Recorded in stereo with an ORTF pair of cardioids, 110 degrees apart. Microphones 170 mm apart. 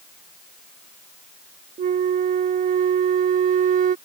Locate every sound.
1.8 s a flute: 55° right